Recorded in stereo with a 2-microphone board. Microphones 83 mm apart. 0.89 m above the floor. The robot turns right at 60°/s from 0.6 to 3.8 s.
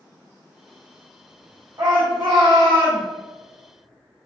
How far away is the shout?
About 0.5 m.